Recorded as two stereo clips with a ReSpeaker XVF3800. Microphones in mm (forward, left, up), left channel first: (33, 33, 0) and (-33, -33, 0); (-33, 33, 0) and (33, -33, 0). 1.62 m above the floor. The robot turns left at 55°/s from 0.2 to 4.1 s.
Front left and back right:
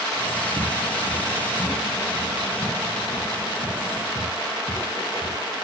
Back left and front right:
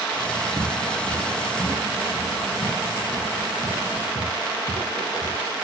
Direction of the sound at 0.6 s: 125° right.